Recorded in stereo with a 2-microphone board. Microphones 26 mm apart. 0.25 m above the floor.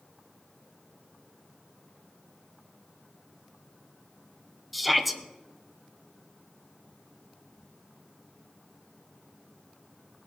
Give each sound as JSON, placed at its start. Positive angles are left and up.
{"t": 4.7, "sound": "a shout", "side_deg": -5, "distance_m": 1.0}